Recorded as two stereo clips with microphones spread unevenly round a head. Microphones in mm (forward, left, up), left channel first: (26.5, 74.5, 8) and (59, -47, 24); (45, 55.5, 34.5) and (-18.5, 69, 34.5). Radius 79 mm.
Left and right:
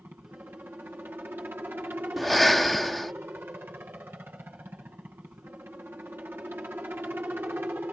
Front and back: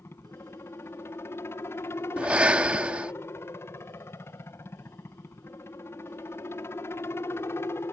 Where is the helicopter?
Straight ahead.